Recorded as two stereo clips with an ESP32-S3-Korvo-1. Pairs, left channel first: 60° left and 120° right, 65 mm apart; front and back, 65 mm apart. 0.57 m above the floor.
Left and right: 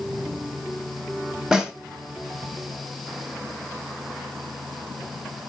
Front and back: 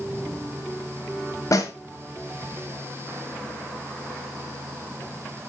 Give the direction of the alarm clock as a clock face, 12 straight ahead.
I don't hear an alarm clock.